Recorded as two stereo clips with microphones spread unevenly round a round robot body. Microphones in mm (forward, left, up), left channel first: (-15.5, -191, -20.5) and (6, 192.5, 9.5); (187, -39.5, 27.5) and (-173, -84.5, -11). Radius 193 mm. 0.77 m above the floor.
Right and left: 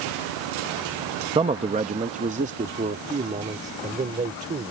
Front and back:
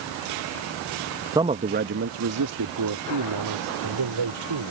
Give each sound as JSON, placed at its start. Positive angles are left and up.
{"t": 1.4, "sound": "a man speaking", "azimuth_deg": 150}